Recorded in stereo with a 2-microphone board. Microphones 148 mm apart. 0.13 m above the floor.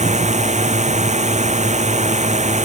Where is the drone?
50° right (ahead or behind).